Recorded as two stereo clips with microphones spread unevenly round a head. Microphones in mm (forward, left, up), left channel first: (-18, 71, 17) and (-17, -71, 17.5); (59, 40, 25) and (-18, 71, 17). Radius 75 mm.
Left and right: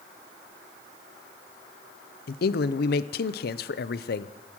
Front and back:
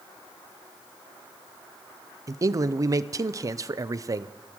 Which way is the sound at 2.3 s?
105° left.